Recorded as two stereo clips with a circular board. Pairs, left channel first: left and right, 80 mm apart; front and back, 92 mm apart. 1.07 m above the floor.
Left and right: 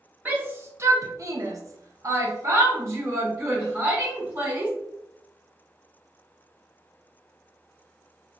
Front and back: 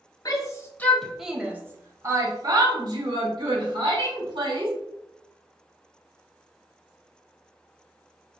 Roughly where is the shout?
Ahead right.